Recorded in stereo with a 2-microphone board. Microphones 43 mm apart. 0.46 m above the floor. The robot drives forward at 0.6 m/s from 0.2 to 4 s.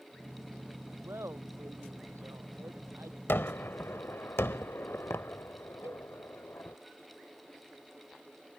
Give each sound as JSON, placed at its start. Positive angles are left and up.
{"t": 1.0, "sound": "laughter", "side_deg": -85}
{"t": 3.3, "sound": "a gunshot", "side_deg": 60}
{"t": 5.8, "sound": "a cowbell", "side_deg": -65}